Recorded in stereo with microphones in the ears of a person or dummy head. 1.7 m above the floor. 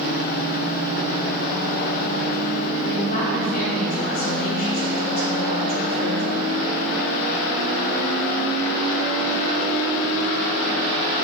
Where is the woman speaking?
50° left (ahead or behind), 3.5 m.